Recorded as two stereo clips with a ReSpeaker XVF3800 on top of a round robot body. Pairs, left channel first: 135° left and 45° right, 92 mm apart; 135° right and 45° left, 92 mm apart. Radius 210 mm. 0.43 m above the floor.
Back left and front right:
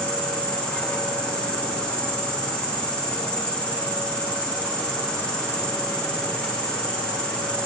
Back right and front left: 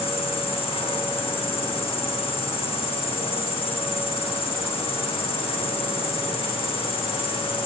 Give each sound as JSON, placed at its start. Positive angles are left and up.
{"t": 0.0, "sound": "an insect", "azimuth_deg": -150, "distance_m": 7.0}